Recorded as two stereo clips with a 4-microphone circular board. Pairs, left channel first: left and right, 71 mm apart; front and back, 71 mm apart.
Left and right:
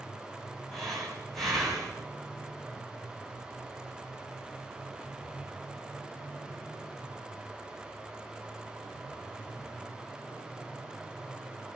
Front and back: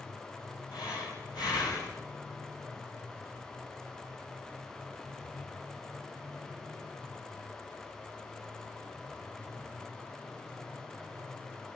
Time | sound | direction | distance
0.7 | breathing | 5° left | 7.5 m